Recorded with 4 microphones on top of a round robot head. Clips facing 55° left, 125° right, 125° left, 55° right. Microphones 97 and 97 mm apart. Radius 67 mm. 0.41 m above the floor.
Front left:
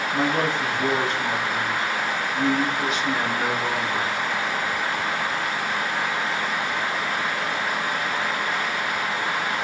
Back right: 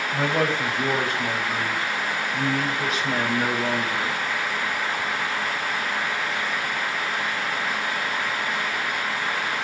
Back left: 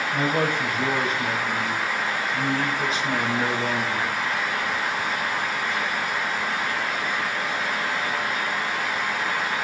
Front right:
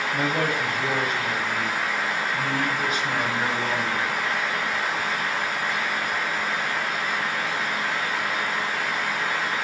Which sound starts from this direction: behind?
A man speaking, at 0.1 s.